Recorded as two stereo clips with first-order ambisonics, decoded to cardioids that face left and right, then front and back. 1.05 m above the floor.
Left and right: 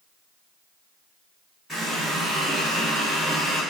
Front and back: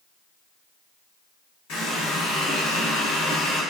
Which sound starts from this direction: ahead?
A running tap, at 1.7 s.